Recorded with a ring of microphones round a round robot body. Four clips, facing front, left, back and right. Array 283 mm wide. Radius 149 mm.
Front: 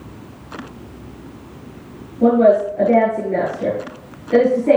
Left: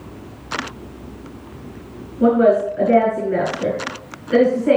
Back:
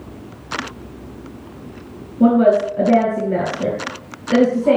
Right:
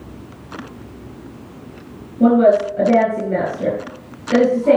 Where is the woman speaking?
145° right, 4.5 m.